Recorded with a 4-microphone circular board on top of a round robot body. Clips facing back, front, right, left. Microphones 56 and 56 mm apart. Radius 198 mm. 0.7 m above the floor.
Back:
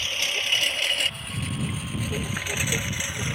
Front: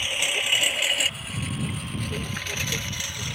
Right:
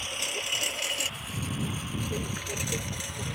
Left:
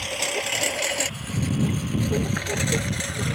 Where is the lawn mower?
75° left; by 3.4 s 110° left.